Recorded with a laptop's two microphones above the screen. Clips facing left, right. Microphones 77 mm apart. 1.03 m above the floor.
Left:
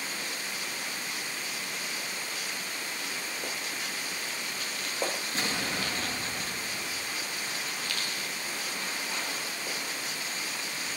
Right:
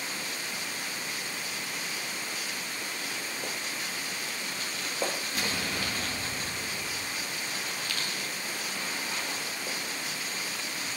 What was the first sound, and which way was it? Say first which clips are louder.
An explosion: left 1 dB; 30° left (ahead or behind).